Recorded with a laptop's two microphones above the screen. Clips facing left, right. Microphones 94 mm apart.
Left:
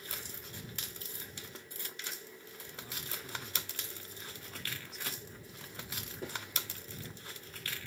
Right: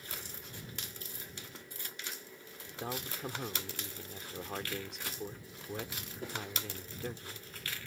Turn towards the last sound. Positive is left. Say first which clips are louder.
# right 9 dB
turn(degrees=-80)